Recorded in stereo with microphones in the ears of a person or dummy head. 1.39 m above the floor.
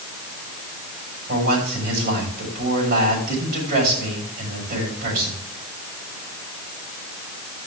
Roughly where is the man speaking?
Right.